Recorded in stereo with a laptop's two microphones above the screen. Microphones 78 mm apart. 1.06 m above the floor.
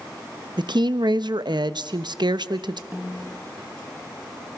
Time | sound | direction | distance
0.6 | a woman speaking | 70° right (ahead or behind) | 0.9 m
2.9 | a snare drum | 25° right (ahead or behind) | 4 m